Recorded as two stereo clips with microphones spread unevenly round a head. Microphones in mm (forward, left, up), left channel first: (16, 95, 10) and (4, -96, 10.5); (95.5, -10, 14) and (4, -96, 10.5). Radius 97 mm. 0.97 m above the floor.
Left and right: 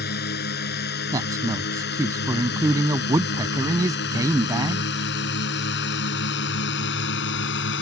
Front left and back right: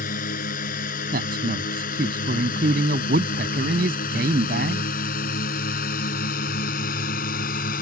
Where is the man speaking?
170° right.